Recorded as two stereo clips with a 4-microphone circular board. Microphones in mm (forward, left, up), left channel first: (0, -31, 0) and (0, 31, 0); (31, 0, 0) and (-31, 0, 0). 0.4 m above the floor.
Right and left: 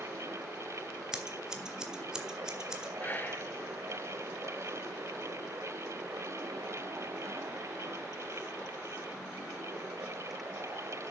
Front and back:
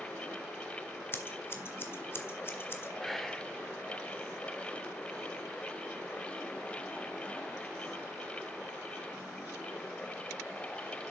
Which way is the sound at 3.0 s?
85° right.